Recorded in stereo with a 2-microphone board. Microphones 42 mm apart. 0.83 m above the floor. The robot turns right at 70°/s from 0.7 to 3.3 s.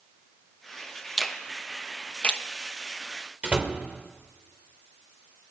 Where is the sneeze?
No sneeze in this recording.